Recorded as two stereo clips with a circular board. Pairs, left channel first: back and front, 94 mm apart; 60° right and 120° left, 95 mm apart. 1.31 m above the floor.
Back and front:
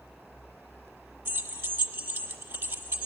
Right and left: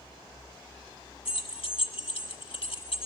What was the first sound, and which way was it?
Keys jangling, 70° right.